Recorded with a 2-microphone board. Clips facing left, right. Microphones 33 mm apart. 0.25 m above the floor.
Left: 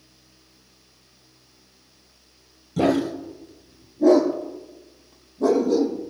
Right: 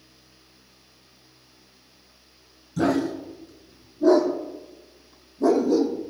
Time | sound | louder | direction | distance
2.8 | a dog barking | left 2 dB | 60° left (ahead or behind) | 2.5 m